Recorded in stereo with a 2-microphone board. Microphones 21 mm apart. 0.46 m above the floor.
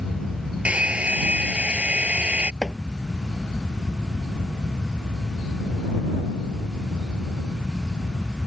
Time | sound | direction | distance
0.7 | a hair dryer | 85° right | ?
2.6 | chopping | 30° left (ahead or behind) | ?